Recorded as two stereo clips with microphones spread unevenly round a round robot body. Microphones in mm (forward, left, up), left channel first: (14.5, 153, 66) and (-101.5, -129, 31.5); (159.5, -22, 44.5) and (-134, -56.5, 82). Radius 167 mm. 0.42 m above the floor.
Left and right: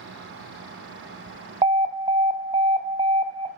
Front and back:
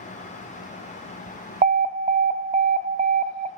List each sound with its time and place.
1.6 s an alarm: 125° right, 0.6 m